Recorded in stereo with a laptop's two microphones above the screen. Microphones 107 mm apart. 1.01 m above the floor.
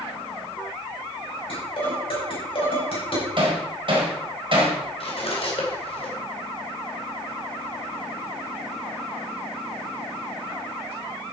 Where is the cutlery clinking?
60° left (ahead or behind), 2.5 m.